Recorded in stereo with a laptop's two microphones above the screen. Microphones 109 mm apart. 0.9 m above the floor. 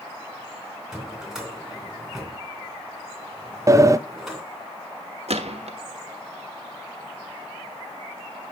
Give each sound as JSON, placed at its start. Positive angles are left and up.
{"t": 0.9, "sound": "a drawer", "side_deg": -5, "distance_m": 2.5}
{"t": 3.7, "sound": "a sliding door", "side_deg": -30, "distance_m": 0.5}
{"t": 5.3, "sound": "a gunshot", "side_deg": -80, "distance_m": 1.1}